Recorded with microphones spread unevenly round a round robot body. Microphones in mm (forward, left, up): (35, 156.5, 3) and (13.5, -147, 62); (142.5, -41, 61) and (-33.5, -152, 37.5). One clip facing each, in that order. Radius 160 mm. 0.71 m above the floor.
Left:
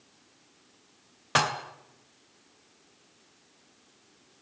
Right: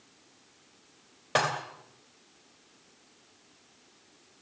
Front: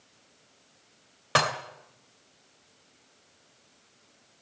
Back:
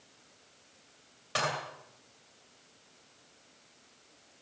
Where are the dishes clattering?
25° left, 2.5 m.